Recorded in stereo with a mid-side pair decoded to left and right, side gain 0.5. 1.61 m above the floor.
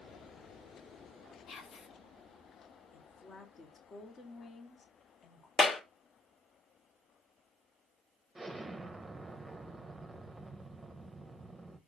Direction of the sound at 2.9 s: 45° left.